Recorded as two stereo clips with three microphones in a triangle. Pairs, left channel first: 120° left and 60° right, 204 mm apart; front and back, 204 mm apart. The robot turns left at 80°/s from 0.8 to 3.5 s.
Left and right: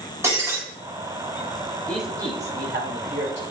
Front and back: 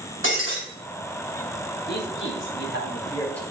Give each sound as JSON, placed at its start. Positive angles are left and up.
{"t": 0.2, "sound": "breaking glass", "azimuth_deg": 15, "distance_m": 4.5}
{"t": 1.9, "sound": "a man speaking", "azimuth_deg": 40, "distance_m": 3.0}